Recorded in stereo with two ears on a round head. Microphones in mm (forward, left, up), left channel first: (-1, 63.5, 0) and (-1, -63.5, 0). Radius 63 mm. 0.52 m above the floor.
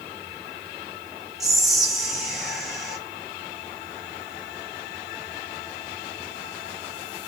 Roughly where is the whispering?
Centre.